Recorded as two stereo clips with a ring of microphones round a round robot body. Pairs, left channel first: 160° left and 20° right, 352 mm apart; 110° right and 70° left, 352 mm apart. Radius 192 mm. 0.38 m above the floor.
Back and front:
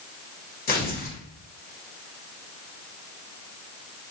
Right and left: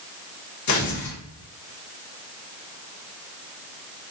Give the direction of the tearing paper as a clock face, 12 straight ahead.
5 o'clock.